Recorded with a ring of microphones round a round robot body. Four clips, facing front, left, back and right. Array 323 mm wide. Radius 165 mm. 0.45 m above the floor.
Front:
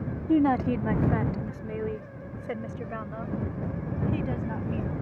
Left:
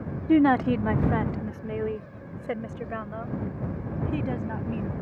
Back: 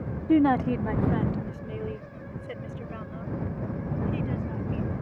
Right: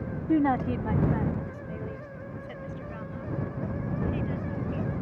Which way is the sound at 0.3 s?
115° left.